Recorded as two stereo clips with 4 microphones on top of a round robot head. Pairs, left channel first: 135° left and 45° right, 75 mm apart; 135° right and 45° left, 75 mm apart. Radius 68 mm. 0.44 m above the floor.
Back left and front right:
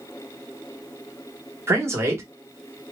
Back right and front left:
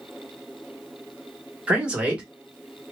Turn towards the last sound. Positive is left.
turn(degrees=-20)